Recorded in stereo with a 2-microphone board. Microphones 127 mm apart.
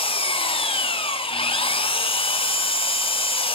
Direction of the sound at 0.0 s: 50° left (ahead or behind).